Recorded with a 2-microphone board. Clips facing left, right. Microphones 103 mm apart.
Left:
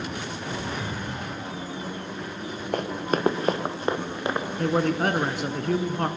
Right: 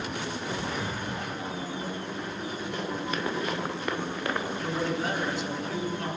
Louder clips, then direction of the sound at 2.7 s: Left 8 dB; 55° left (ahead or behind).